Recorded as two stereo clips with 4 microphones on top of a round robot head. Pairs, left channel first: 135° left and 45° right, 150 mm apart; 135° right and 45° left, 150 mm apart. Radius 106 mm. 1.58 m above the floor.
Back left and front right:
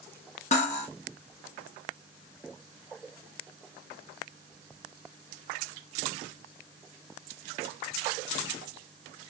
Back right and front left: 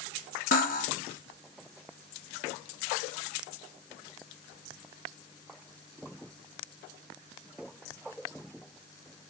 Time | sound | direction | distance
0.5 | cutlery clinking | 175° right | 1.4 m